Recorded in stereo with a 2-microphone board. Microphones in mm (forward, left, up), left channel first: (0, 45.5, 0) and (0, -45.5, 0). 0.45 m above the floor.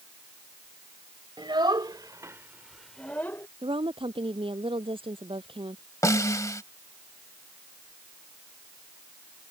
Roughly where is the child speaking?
Right.